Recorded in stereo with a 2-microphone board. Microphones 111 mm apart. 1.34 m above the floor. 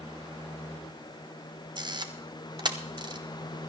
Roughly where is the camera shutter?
Right.